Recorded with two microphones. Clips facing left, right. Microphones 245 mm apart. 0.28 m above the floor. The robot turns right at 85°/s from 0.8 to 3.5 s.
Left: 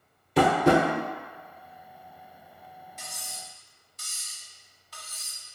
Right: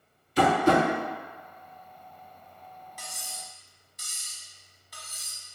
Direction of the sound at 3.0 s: 25° left (ahead or behind).